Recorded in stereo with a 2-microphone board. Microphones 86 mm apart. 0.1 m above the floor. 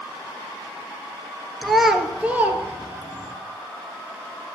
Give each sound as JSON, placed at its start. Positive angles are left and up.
{"t": 1.6, "sound": "a child speaking", "side_deg": 5, "distance_m": 1.2}